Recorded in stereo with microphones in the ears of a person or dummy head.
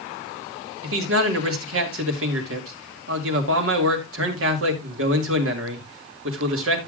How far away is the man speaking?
About 2 m.